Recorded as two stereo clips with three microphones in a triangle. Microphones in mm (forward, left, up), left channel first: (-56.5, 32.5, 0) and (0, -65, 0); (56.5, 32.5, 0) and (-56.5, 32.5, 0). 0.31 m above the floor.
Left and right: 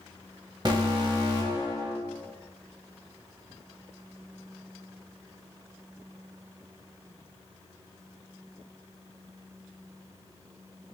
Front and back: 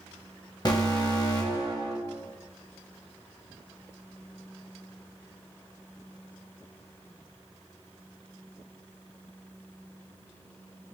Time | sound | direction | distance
0.7 | an alarm | 30° right | 0.9 m